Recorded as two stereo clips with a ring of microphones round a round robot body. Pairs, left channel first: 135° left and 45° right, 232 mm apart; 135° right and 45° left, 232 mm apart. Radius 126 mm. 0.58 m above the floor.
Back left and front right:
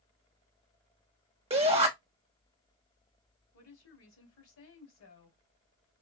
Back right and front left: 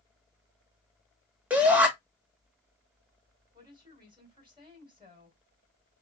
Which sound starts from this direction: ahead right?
A shout, at 1.5 s.